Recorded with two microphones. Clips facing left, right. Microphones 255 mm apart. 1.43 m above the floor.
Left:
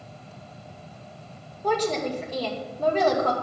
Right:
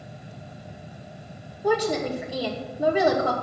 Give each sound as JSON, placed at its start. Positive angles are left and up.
{"t": 1.6, "sound": "a woman speaking", "side_deg": -10, "distance_m": 2.5}